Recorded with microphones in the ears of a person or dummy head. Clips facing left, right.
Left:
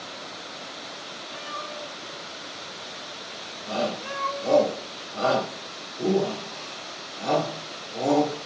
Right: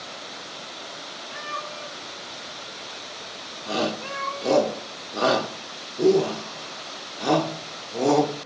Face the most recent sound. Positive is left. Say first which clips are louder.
# right 1 dB
turn(degrees=-65)  # may be behind; listen again after turning